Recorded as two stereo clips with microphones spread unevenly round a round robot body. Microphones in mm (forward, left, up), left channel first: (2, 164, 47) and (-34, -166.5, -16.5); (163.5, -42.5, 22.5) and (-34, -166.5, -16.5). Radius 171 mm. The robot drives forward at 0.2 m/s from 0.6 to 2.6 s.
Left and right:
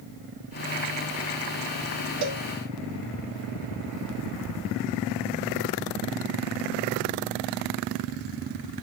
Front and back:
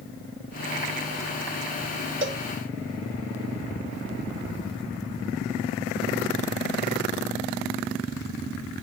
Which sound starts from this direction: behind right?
A cowbell, at 2.2 s.